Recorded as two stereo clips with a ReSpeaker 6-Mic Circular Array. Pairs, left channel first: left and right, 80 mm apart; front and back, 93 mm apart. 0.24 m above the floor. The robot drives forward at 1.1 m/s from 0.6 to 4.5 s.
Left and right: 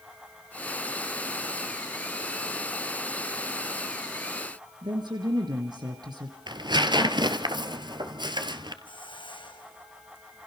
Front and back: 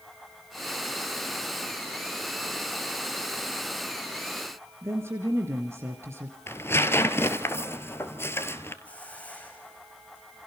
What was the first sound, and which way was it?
A woman speaking, 115° right.